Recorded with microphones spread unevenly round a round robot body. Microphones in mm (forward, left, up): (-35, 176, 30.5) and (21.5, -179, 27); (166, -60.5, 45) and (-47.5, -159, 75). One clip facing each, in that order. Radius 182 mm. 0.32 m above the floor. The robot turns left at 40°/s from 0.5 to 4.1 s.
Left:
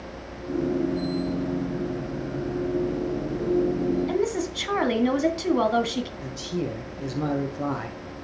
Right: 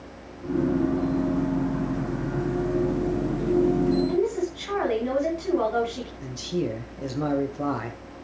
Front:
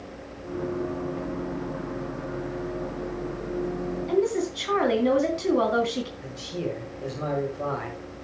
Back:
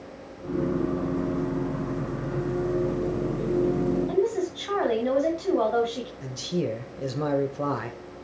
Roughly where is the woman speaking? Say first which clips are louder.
Right 1 dB, front 1 dB; left.